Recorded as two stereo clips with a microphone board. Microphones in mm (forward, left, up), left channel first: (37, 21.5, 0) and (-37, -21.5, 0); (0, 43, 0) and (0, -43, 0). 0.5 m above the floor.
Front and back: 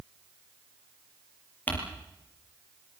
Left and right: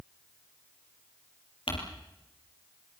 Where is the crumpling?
100° left, 6.5 m.